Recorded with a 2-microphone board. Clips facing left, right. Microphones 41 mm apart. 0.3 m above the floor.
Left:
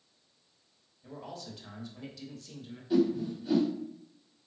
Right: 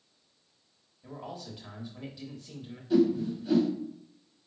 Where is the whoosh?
5° left (ahead or behind), 1.1 m.